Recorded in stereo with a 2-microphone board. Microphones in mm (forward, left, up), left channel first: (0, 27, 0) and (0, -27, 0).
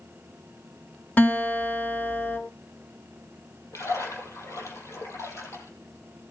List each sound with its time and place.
1.2 s a guitar: 35° left (ahead or behind), 1.8 m
3.7 s a splash: 65° left (ahead or behind), 5 m